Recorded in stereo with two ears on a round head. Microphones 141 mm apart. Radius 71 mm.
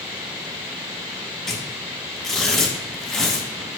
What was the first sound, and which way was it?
Tearing paper, centre (ahead or behind).